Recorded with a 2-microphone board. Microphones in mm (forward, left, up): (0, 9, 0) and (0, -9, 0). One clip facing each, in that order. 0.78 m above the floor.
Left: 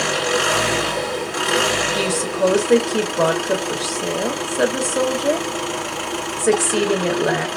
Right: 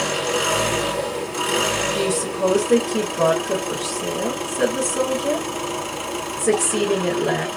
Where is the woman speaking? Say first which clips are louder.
Left 2 dB; 50° left (ahead or behind), 1.1 m.